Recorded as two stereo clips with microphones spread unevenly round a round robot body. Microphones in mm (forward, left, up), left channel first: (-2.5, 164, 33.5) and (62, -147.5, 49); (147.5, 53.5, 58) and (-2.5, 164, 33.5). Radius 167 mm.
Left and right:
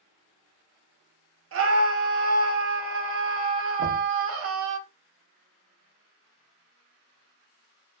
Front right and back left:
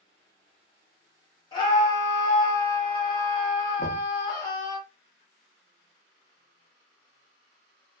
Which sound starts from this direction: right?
A scream, at 1.5 s.